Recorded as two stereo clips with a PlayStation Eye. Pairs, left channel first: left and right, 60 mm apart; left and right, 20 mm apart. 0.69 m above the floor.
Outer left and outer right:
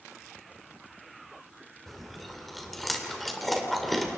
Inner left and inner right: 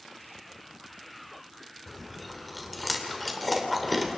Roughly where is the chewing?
Centre.